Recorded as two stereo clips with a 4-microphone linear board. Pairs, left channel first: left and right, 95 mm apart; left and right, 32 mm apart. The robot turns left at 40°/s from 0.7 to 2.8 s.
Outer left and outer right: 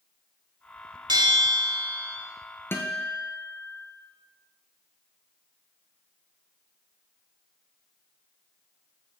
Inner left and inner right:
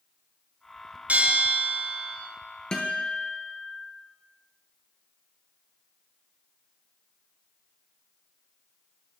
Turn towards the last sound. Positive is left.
turn(degrees=20)  # may be behind; listen again after turning